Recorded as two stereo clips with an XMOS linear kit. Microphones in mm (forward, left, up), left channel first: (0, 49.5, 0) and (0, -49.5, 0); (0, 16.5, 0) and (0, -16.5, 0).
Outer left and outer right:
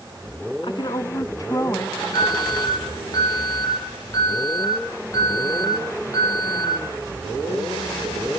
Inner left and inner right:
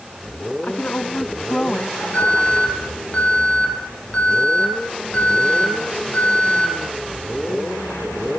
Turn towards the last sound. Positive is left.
turn(degrees=40)  # may be behind; listen again after turning